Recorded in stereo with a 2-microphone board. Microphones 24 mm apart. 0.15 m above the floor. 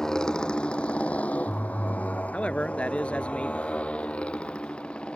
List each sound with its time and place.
0.0 s a motorcycle: 25° left (ahead or behind); by 5.2 s 45° left (ahead or behind)
2.3 s a man speaking: 55° left (ahead or behind)